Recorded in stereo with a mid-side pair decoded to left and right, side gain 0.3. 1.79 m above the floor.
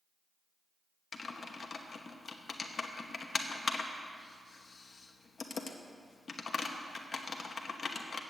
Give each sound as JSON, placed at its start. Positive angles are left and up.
{"t": 1.1, "sound": "typing on a keyboard", "azimuth_deg": 55, "distance_m": 1.0}